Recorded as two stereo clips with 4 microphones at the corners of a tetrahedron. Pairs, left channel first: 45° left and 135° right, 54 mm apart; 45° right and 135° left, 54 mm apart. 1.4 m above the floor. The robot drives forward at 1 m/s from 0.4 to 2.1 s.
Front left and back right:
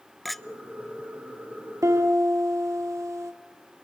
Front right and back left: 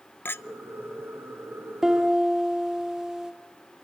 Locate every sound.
0.2 s a clink: 40° right, 0.5 m; by 0.4 s 45° right, 0.5 m
1.8 s a piano: 140° right, 1.9 m; by 3.3 s 145° right, 2 m